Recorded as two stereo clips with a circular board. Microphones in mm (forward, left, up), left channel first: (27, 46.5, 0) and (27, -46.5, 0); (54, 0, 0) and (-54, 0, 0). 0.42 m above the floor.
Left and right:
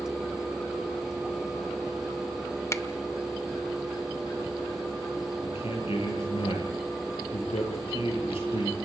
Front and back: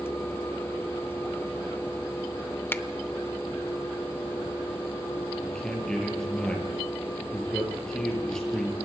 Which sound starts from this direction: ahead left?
A finger snap, at 2.7 s.